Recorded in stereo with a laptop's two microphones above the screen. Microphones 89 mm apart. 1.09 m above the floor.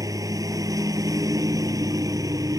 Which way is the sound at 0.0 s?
40° right (ahead or behind).